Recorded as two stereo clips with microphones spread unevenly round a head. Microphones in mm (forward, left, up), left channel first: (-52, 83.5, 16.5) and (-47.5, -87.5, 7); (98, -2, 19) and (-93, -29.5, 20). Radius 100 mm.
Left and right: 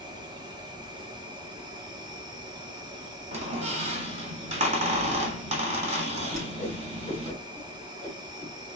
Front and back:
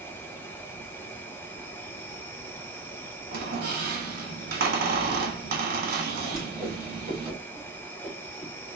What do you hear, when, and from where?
0.0 s an insect: 60° right, 1.1 m
3.3 s a squeak: 135° right, 1.5 m
6.3 s a whoosh: 85° right, 2.5 m